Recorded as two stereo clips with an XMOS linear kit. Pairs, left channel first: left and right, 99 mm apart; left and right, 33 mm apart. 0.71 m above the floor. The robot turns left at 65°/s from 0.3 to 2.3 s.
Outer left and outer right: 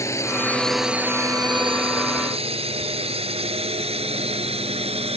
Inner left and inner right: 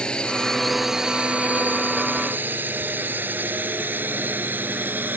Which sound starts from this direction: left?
A drone, at 0.0 s.